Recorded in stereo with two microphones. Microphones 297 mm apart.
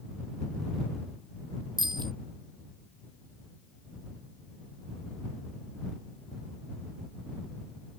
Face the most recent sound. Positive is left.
turn(degrees=-15)  # may be behind; listen again after turning